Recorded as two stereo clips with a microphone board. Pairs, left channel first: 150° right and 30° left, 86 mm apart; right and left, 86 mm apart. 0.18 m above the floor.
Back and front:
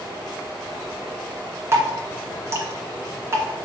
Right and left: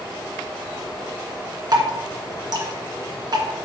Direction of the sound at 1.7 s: 80° left.